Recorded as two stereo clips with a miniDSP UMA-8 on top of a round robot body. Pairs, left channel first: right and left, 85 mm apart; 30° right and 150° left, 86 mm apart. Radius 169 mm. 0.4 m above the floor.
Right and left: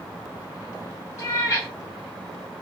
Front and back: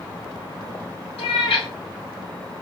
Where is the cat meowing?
35° right, 1.3 m.